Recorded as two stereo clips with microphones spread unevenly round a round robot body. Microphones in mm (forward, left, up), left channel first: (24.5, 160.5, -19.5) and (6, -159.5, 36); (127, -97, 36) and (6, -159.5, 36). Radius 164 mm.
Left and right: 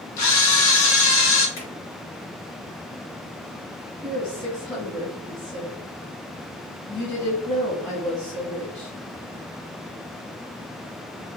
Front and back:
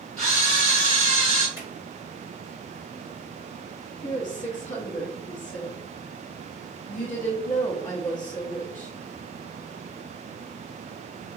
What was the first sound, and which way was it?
A camera shutter, 110° left.